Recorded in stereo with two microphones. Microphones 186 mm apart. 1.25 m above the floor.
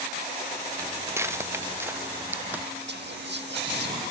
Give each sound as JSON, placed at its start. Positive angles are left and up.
{"t": 0.8, "sound": "footsteps", "side_deg": -15}
{"t": 2.9, "sound": "whispering", "side_deg": -70}